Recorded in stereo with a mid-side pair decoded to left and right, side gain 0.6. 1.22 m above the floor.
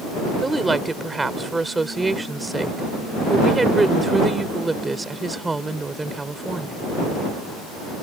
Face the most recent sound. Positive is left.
turn(degrees=-15)